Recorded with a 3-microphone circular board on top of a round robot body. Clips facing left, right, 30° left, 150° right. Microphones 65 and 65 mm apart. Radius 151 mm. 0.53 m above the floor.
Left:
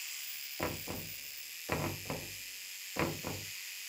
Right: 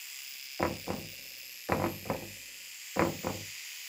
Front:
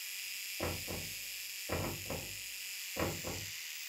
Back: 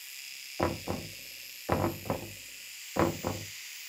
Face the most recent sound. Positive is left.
turn(degrees=-145)